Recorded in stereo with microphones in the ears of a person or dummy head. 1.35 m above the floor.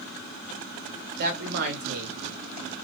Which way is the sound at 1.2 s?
55° right (ahead or behind).